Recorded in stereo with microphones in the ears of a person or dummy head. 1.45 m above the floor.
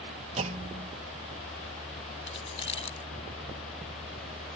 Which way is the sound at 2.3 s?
30° left (ahead or behind).